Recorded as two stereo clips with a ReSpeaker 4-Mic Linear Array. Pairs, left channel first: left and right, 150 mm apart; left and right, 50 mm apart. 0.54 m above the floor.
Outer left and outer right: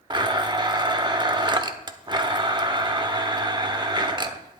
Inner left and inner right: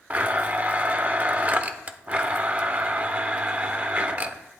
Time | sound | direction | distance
0.1 | a blender | 30° right (ahead or behind) | 0.7 m